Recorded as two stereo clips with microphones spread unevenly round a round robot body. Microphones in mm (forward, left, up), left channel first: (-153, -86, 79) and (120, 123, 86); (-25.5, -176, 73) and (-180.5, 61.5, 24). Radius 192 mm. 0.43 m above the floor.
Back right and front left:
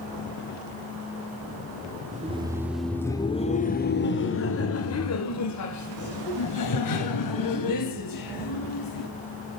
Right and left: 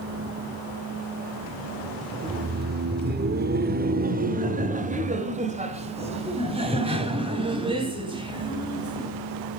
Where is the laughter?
100° left, 1.2 m; by 9.1 s 165° right, 4 m.